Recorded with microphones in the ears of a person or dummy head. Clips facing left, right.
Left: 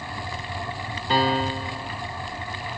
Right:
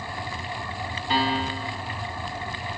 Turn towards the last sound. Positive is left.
turn(degrees=35)  # may be behind; listen again after turning